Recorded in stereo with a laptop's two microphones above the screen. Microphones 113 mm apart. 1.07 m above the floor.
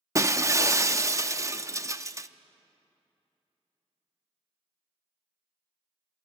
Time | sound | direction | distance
0.1 | breaking glass | 25° right (ahead or behind) | 0.6 m